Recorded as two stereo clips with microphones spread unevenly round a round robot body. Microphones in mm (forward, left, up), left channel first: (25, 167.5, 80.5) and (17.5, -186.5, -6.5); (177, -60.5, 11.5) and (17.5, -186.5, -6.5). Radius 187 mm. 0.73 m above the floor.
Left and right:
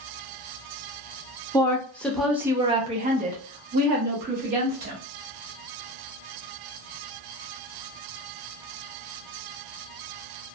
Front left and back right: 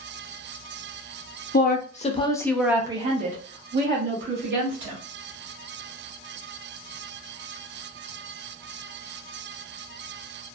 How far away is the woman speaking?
About 0.9 m.